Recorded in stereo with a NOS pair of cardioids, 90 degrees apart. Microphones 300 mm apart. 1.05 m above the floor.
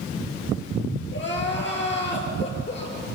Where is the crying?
35° left, 8 m.